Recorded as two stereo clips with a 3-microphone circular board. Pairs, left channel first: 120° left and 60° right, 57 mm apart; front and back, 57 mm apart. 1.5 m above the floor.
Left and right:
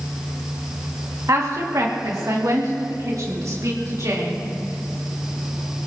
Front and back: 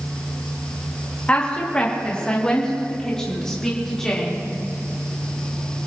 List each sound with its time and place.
1.3 s a woman speaking: 65° right, 2 m; by 4.5 s 85° right, 4 m